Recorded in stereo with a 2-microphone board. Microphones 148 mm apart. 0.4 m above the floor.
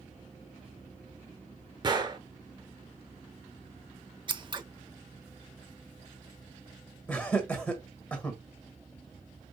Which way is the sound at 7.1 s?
10° left (ahead or behind).